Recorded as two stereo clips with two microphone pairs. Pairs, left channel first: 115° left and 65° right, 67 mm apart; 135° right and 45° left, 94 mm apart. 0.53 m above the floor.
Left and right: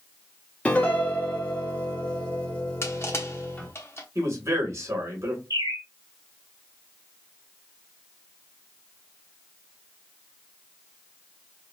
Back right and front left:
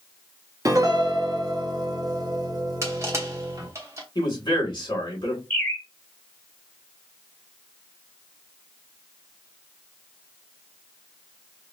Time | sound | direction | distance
0.7 | a piano | 55° left | 1.1 m
2.8 | crushing | 90° left | 1.0 m
4.2 | a man speaking | 100° right | 2.5 m
5.5 | a bird | 65° right | 1.9 m